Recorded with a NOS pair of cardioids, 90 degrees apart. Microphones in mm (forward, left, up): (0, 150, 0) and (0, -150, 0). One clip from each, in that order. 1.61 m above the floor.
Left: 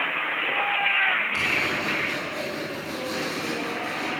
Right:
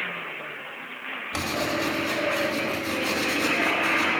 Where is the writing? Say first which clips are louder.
Left 3 dB; 65° right, 3 m.